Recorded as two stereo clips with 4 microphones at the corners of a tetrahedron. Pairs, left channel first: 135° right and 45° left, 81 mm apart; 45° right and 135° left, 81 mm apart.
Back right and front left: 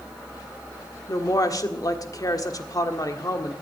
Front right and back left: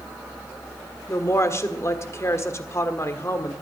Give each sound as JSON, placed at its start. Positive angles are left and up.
{"t": 1.1, "sound": "a woman speaking", "azimuth_deg": -95, "distance_m": 1.5}